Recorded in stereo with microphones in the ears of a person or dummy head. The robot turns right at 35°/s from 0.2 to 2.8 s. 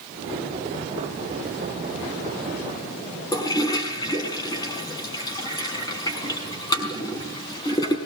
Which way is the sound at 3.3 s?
20° left (ahead or behind).